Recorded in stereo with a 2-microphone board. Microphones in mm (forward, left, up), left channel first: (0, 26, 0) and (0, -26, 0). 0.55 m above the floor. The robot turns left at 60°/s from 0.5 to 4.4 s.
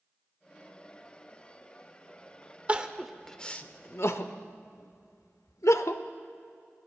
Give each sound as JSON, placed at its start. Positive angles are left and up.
{"t": 2.7, "sound": "crying", "side_deg": -25, "distance_m": 0.6}